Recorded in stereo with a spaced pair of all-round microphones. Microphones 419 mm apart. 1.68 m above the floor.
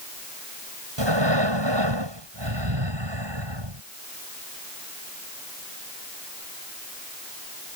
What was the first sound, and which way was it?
Breathing, 90° right.